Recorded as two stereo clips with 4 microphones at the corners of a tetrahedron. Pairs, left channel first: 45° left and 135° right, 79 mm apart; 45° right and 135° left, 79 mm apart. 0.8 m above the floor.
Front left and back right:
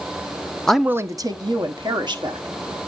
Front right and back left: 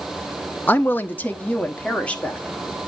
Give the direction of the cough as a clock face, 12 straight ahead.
I don't hear a cough.